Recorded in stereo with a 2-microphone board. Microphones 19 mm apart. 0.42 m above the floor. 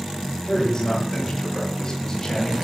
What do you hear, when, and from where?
0.4 s a man speaking: 35° left (ahead or behind), 9.5 m